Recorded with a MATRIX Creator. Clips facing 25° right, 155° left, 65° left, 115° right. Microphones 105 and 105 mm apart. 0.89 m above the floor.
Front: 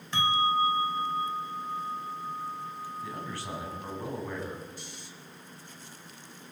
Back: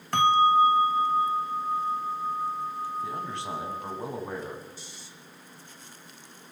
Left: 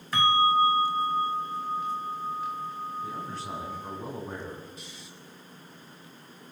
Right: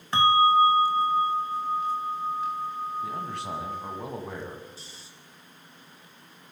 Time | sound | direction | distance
0.1 | a bell | 175° right | 1.5 m
3.0 | a man speaking | 135° right | 9 m
4.8 | snoring | 55° right | 5 m